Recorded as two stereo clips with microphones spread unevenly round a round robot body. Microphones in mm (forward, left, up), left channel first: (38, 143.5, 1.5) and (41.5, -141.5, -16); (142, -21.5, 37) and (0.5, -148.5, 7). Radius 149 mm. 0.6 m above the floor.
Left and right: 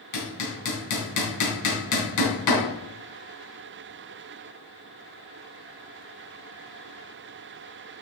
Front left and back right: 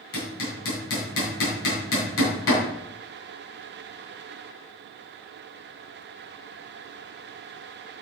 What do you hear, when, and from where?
0.1 s hammering: 65° left, 3.5 m